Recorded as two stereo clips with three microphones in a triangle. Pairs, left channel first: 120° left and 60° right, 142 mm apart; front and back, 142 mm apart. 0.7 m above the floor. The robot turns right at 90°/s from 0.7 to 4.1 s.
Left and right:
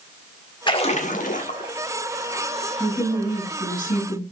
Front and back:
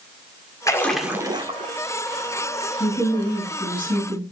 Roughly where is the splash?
Ahead left.